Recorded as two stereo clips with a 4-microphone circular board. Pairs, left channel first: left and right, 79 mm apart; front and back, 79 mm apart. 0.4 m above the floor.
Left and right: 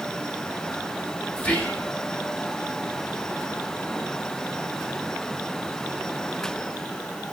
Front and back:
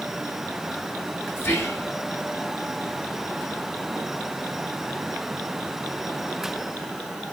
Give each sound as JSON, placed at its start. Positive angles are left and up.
{"t": 1.4, "sound": "whispering", "azimuth_deg": 30, "distance_m": 1.0}